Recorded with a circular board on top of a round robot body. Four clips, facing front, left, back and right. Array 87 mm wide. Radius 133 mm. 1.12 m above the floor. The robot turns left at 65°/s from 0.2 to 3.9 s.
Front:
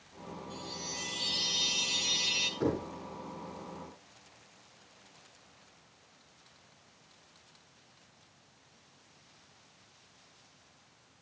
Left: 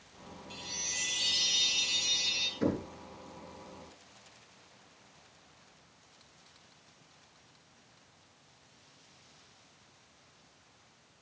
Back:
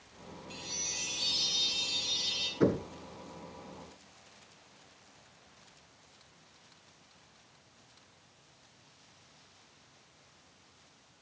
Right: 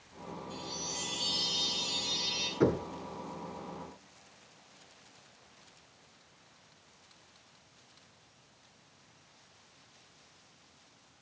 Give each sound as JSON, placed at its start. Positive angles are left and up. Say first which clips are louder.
{"t": 0.5, "sound": "a chime", "louder": "right 4 dB, front 4 dB", "azimuth_deg": 140, "distance_m": 2.5}
{"t": 2.6, "sound": "knocking", "louder": "right 4 dB, back 4 dB", "azimuth_deg": -105, "distance_m": 7.5}